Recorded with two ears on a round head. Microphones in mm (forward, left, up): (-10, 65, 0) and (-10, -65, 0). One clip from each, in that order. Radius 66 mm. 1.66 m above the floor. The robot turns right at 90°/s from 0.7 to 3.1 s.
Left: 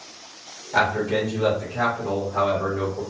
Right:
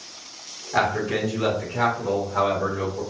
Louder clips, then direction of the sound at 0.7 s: Left 2 dB; 170° right.